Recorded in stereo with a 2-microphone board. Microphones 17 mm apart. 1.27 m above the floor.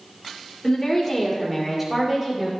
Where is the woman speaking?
20° left (ahead or behind), 4.5 m; by 2.5 s 15° right (ahead or behind), 4.5 m.